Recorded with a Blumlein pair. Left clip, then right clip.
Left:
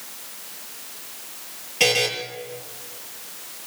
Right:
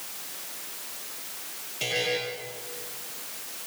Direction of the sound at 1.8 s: 40° left.